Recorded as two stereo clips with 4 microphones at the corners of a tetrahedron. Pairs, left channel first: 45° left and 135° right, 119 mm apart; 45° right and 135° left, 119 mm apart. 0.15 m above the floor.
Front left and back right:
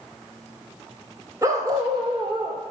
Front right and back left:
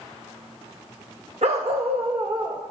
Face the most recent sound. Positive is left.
turn(degrees=-175)